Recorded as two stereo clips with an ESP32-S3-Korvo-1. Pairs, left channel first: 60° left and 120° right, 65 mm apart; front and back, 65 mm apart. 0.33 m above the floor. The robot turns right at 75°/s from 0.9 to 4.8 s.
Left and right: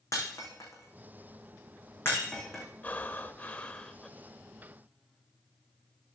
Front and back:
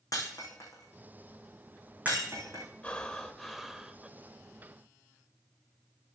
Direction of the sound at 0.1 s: 25° left.